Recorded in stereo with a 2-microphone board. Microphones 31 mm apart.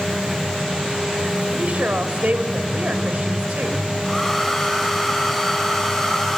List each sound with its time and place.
1.5 s a woman speaking: 60° right (ahead or behind), 2 m
4.0 s a hair dryer: 10° left (ahead or behind), 5.5 m